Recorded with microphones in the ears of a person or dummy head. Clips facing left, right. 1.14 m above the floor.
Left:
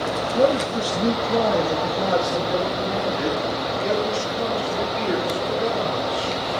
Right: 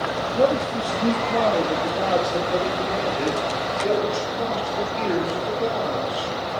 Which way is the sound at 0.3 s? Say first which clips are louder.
Left 1 dB; 35° left (ahead or behind).